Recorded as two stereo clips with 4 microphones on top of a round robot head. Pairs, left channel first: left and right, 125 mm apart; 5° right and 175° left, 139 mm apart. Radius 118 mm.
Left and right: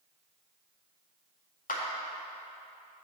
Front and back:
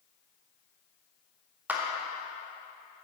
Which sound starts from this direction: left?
A clap, at 1.7 s.